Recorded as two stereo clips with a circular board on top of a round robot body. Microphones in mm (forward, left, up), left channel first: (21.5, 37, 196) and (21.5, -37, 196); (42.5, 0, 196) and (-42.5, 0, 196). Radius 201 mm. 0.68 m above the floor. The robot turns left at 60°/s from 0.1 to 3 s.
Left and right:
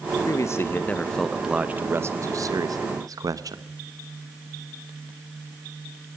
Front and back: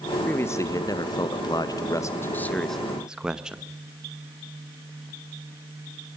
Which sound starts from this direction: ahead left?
A man speaking, at 0.3 s.